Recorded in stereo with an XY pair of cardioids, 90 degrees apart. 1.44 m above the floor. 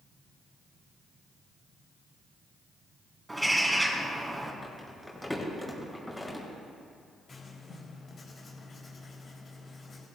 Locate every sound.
3.3 s a bird: 15° right, 4 m
4.6 s crumpling: 5° left, 6 m
7.3 s writing: 45° left, 5 m